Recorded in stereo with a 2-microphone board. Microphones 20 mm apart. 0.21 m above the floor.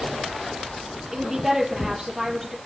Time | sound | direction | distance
1.1 | a woman speaking | 15° right (ahead or behind) | 5 m